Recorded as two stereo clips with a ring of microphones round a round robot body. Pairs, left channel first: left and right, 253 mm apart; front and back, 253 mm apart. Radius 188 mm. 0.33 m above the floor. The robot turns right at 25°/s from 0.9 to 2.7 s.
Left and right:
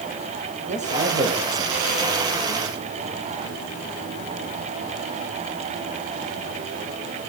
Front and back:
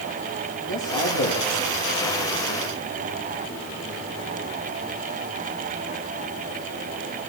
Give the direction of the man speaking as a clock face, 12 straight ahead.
1 o'clock.